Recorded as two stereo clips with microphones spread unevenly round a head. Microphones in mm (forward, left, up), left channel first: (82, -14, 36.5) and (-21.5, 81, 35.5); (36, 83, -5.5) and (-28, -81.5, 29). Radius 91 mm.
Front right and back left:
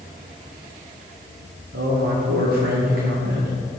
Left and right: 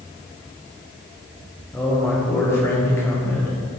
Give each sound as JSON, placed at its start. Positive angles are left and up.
{"t": 1.7, "sound": "a man speaking", "azimuth_deg": 145, "distance_m": 1.3}